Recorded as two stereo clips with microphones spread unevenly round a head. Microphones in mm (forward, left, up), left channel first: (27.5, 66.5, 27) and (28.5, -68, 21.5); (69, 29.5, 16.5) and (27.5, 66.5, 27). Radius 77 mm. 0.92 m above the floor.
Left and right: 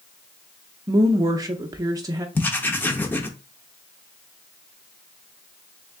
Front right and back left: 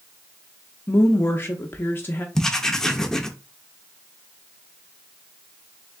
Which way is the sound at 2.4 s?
55° left.